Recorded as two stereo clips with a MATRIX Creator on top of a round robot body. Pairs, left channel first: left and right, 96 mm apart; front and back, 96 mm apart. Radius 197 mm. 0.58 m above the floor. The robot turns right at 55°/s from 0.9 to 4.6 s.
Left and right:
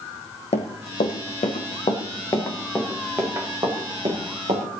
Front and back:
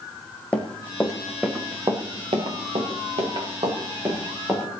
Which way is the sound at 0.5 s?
80° left.